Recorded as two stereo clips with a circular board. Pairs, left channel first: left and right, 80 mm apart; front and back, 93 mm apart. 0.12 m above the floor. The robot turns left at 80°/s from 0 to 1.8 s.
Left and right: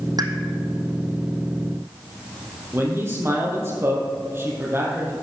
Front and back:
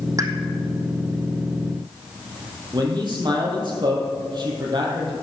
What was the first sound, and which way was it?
A pop, 125° right.